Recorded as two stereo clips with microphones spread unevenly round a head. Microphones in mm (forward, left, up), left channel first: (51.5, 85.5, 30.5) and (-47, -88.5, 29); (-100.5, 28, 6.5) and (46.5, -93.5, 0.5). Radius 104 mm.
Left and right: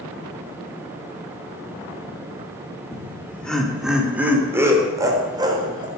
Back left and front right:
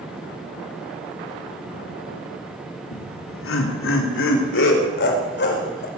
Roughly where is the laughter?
Behind left.